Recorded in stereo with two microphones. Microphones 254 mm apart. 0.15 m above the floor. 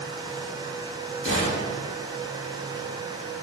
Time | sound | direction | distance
1.2 | a gunshot | 25° left (ahead or behind) | 2.5 m